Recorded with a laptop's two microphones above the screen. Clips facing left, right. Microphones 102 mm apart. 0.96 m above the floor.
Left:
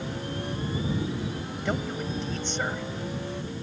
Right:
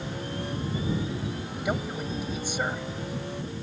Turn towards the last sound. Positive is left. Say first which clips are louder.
# even
turn(degrees=-10)  # may be behind; listen again after turning